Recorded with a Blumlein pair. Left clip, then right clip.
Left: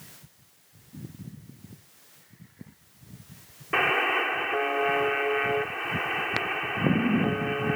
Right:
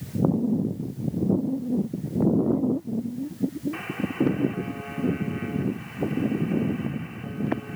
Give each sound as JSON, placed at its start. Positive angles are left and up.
{"t": 3.7, "sound": "a buzzer", "azimuth_deg": 35}